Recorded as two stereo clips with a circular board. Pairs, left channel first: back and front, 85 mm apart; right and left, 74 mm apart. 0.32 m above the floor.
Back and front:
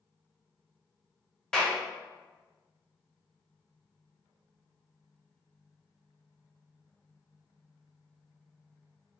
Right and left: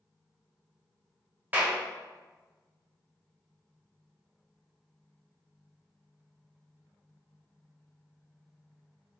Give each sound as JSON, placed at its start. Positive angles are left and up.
{"t": 1.5, "sound": "a clap", "azimuth_deg": 105, "distance_m": 0.7}